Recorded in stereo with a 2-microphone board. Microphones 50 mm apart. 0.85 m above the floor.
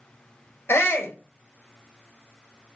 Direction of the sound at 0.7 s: 55° left (ahead or behind).